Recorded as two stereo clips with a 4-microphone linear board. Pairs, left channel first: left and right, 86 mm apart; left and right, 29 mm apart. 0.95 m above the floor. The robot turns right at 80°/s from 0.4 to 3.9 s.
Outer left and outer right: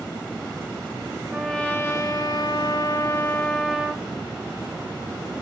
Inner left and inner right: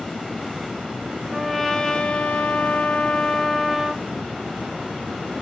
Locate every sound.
1.3 s a trumpet: 10° right, 0.6 m; by 4.0 s 165° right, 0.6 m